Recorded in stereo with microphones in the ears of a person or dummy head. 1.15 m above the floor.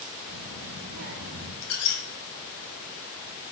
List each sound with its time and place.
0.3 s a child speaking: 55° right (ahead or behind), 0.6 m
1.6 s a squeak: 80° left, 0.7 m